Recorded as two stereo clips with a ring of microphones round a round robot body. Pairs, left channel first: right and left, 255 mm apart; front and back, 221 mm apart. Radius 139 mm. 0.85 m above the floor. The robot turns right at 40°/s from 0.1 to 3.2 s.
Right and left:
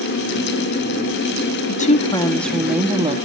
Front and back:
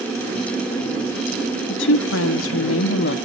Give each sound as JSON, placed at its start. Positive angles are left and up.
{"t": 1.7, "sound": "a woman speaking", "azimuth_deg": -35, "distance_m": 1.4}